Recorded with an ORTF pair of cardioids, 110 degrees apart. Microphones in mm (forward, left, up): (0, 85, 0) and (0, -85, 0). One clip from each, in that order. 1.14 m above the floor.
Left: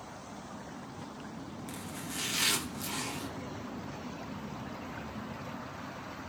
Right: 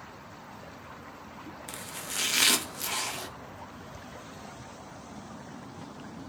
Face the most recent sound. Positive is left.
turn(degrees=-45)